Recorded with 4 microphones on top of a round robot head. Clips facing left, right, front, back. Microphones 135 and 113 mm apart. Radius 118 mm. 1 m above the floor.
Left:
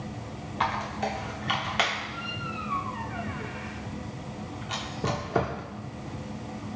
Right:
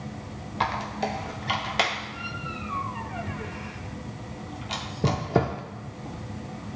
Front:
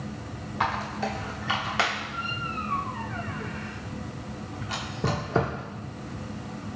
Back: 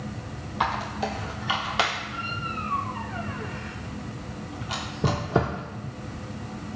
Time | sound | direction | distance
0.6 | a squeak | 115° right | 0.5 m